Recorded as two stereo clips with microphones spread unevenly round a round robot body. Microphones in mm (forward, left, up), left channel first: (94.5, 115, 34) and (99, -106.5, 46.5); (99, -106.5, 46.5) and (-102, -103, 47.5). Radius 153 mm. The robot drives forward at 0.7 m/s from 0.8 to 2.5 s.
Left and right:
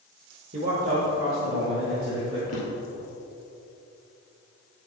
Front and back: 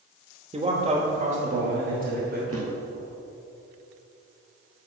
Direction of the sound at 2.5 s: 135° left.